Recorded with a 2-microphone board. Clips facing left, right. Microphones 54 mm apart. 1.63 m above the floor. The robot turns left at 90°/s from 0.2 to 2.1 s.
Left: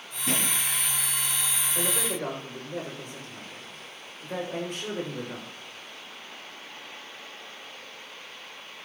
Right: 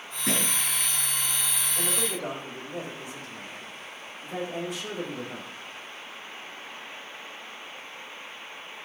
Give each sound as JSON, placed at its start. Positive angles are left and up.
{"t": 0.3, "sound": "a thud", "side_deg": -60, "distance_m": 5.5}
{"t": 1.8, "sound": "a man speaking", "azimuth_deg": 75, "distance_m": 7.5}